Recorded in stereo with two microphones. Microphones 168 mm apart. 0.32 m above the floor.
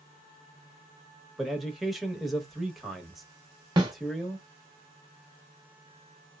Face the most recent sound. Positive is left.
turn(degrees=-25)  # may be behind; listen again after turning